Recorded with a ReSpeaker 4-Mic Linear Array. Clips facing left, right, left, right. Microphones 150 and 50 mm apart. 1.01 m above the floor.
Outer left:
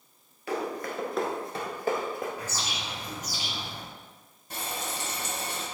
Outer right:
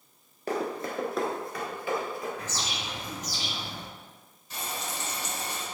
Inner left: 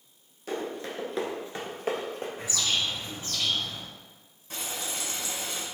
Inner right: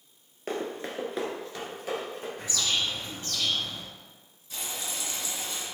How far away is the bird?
About 2.0 m.